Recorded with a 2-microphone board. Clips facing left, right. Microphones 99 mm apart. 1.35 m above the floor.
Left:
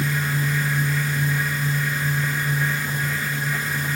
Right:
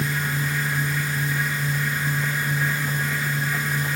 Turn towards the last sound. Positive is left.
No sound to turn to.